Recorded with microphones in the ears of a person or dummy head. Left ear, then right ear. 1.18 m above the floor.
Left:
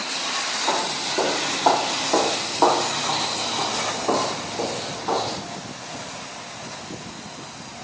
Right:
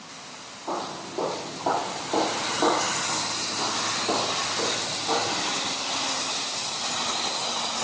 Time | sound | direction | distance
0.7 | footsteps | 70° left (ahead or behind) | 3.5 m